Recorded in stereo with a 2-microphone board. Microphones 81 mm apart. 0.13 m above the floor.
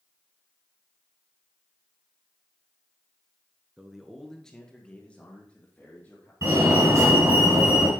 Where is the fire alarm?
35° right (ahead or behind), 2.5 m.